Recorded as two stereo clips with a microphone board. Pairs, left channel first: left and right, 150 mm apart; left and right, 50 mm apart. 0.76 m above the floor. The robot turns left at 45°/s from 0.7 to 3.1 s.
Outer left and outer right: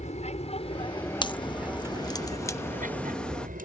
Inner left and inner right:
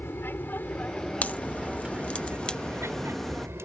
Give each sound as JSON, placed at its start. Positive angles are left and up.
{"t": 0.0, "sound": "an aircraft", "side_deg": 50}
{"t": 1.2, "sound": "a crack", "azimuth_deg": 100}